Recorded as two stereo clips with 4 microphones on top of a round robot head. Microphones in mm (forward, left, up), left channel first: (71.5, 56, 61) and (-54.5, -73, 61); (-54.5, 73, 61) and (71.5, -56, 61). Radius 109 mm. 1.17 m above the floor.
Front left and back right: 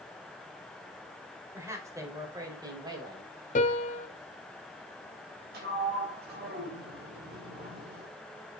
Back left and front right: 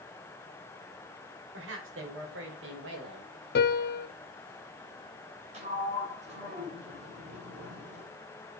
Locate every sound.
1.5 s a woman speaking: 60° right, 5 m; by 3.3 s 65° right, 5.5 m
3.5 s a piano: 100° left, 1.3 m
5.5 s a sliding door: 100° right, 6.5 m